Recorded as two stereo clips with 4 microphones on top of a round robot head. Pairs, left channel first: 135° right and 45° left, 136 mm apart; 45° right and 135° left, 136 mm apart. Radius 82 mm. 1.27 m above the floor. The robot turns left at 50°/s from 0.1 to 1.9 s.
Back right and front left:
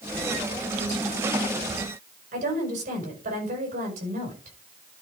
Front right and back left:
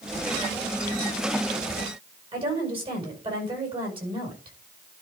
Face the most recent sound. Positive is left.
turn(degrees=80)